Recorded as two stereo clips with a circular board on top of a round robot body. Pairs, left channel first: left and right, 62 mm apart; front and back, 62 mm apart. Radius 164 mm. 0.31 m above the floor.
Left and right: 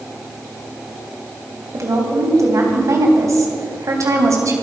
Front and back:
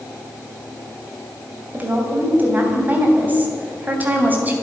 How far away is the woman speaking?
About 3 m.